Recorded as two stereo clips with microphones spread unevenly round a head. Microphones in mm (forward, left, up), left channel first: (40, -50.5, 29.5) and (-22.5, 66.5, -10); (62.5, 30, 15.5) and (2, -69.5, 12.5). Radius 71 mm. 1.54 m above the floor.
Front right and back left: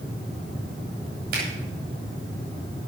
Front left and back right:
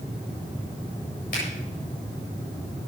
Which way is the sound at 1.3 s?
100° left.